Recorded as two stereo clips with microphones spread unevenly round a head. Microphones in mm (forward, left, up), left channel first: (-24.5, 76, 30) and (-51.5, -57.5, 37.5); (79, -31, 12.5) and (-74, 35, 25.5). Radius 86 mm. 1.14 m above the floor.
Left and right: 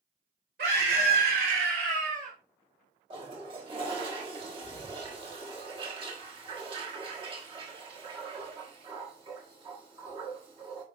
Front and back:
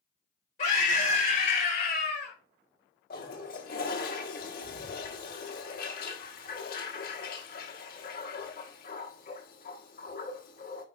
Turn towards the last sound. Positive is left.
turn(degrees=-45)